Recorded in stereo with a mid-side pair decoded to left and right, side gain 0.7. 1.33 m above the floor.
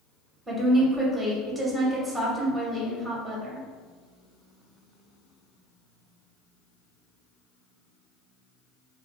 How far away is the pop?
I don't hear a pop.